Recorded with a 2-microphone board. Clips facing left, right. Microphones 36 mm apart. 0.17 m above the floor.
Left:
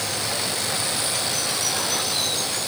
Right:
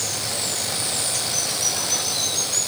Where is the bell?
I don't hear a bell.